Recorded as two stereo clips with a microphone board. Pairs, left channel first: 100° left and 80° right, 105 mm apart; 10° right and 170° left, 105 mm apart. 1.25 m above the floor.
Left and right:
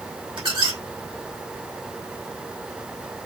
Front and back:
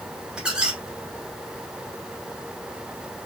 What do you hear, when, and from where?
0.4 s a squeak: 110° right, 1.2 m